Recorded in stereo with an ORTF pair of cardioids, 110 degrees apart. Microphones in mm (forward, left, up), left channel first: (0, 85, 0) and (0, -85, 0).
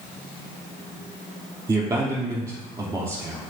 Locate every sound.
1.7 s a man speaking: 25° right, 3.5 m